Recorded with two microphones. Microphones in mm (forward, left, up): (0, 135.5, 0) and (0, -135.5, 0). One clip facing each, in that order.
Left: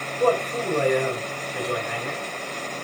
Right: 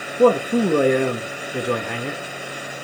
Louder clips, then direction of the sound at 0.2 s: Right 7 dB; 75° right (ahead or behind).